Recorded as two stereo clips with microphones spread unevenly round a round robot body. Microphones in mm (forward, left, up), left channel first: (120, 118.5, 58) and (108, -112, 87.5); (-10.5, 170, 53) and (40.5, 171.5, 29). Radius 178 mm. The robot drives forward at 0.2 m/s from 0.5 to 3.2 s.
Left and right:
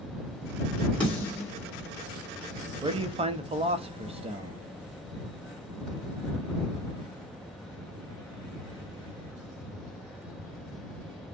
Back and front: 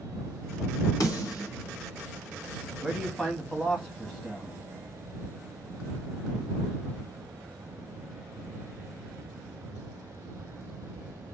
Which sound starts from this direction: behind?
A snare drum, at 1.0 s.